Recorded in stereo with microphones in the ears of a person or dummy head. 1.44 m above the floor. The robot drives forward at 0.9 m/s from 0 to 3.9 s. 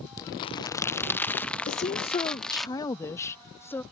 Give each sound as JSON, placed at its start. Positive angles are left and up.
{"t": 0.2, "sound": "crumpling", "side_deg": 20}
{"t": 1.7, "sound": "a woman speaking", "side_deg": 40}